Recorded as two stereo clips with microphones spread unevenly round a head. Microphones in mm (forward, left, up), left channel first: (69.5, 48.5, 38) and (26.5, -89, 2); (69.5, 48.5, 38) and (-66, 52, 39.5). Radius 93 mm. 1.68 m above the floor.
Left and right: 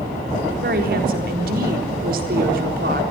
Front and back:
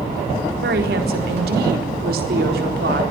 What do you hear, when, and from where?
0.6 s a woman speaking: 150° right, 3.5 m